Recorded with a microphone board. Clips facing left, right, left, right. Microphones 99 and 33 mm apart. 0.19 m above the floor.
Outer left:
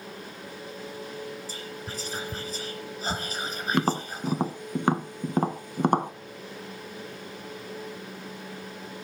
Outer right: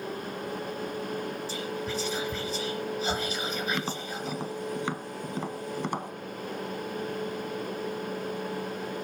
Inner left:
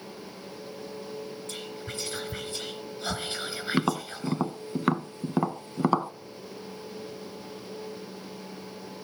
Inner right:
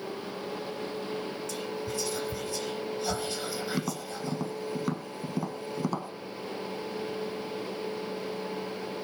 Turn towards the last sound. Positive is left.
turn(degrees=50)  # may be behind; listen again after turning